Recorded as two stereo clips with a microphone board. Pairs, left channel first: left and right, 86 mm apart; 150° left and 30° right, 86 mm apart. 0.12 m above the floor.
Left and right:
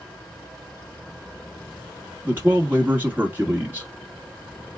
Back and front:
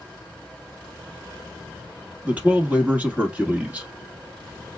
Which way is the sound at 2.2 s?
70° right.